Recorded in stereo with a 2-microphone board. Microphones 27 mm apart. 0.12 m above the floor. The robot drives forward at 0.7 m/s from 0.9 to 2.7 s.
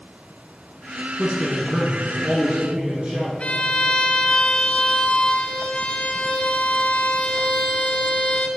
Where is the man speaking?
40° right (ahead or behind), 1.4 m.